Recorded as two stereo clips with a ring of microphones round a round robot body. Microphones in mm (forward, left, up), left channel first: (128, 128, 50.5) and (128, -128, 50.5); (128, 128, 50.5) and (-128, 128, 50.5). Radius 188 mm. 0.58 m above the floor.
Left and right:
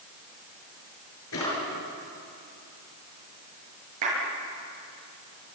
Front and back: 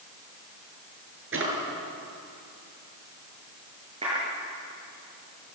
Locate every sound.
1.3 s a drawer: 140° left, 6.5 m
4.0 s a clap: 105° right, 8.5 m